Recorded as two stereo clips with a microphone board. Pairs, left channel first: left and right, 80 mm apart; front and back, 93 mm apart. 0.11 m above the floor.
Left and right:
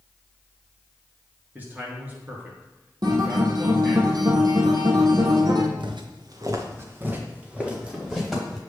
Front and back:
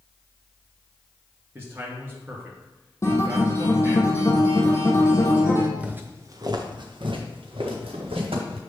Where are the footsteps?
100° right, 1.2 m; by 8.6 s 175° right, 3 m.